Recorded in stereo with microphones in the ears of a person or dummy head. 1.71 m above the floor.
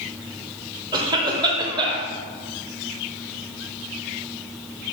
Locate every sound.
0.9 s a cough: 25° right (ahead or behind), 1.1 m